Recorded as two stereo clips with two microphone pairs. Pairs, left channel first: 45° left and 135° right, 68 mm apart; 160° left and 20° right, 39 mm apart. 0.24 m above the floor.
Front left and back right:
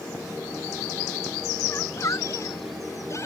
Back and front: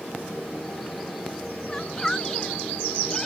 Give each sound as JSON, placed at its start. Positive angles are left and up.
{"t": 1.7, "sound": "a shout", "azimuth_deg": 80}